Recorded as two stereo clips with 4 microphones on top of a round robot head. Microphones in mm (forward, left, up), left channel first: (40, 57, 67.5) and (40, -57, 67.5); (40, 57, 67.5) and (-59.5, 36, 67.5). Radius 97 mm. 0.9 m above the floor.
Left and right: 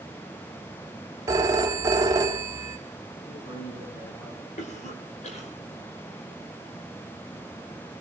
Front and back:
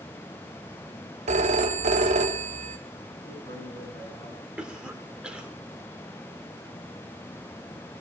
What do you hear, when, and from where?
1.3 s a phone ringing: 155° right, 1.1 m
3.2 s a man speaking: 70° left, 8.5 m
4.6 s a cough: 110° left, 4 m